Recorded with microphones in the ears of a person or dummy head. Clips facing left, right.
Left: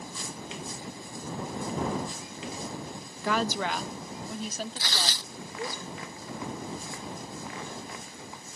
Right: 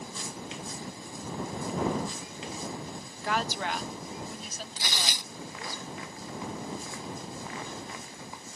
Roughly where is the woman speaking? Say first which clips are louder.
Left 3 dB; left.